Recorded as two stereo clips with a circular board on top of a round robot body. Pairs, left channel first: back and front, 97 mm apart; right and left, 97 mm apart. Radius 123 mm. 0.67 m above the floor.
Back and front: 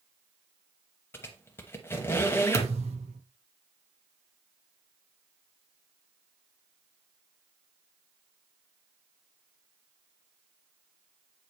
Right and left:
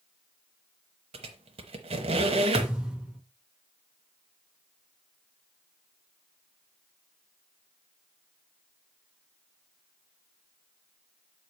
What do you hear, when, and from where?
1.1 s a squeak: 115° left, 0.7 m
2.5 s a thud: 5° left, 0.8 m